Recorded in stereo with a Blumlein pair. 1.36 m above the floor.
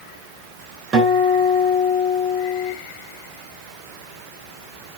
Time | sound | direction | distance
0.9 | a guitar | 30° right | 3.5 m